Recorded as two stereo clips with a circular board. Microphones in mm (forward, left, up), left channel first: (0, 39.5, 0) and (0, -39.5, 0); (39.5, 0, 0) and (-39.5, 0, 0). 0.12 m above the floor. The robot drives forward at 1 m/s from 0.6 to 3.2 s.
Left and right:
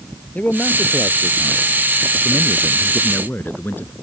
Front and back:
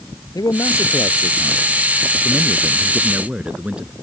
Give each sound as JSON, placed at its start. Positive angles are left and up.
{"t": 0.3, "sound": "a man speaking", "azimuth_deg": 20}